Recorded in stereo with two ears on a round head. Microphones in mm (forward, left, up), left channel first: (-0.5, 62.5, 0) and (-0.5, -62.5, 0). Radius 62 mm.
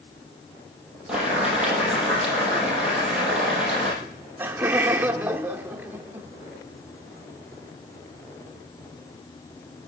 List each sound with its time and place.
1.1 s boiling: 5° right (ahead or behind), 5.5 m
4.0 s laughter: 15° right (ahead or behind), 1.0 m